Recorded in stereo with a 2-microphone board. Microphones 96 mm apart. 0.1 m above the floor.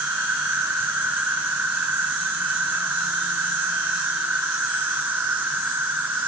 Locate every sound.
0.0 s an insect: 15° right (ahead or behind), 1.9 m